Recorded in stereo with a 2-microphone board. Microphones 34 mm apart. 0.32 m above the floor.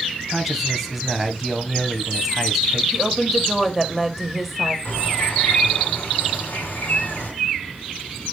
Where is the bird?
60° left (ahead or behind), 3.5 m.